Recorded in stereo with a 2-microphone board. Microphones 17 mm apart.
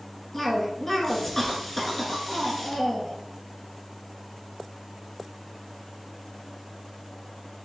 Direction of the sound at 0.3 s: 15° left (ahead or behind).